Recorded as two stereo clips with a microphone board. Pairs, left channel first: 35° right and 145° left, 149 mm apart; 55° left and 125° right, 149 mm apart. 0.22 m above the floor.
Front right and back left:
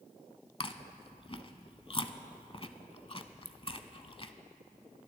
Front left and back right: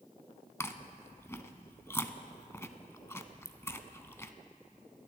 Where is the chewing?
10° right, 0.6 m.